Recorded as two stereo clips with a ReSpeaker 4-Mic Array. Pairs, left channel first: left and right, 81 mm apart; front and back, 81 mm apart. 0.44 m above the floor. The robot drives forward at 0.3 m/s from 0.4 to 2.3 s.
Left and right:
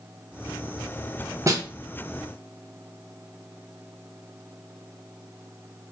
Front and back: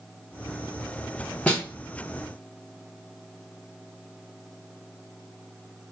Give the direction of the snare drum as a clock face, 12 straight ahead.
2 o'clock.